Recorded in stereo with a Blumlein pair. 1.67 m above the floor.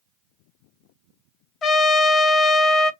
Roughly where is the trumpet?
Ahead left.